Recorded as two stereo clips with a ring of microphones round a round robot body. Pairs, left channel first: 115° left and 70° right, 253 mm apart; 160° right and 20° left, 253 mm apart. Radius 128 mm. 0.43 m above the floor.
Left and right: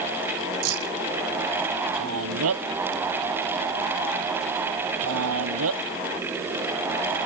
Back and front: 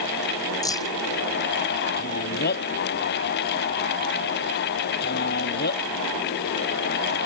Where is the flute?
I don't hear a flute.